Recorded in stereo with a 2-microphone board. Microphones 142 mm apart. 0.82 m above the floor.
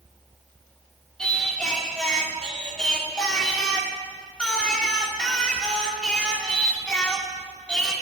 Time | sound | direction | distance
1.2 | singing | 5° left (ahead or behind) | 1.8 m